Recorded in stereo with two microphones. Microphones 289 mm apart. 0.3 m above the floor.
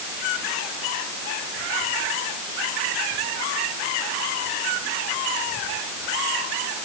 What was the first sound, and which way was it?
Only background noise.